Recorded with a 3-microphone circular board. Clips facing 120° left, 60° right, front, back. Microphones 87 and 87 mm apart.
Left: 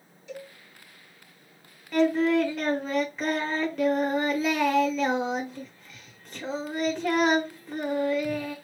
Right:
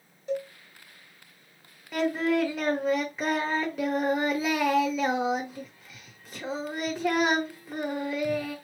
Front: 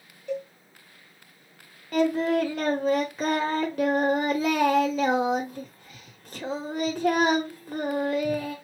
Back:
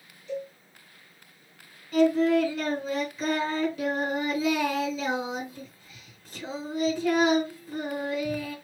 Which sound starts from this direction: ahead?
A cowbell, at 0.3 s.